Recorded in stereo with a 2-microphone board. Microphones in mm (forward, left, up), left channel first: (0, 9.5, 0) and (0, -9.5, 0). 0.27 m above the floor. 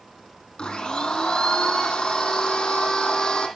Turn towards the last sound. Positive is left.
turn(degrees=60)  # may be behind; listen again after turning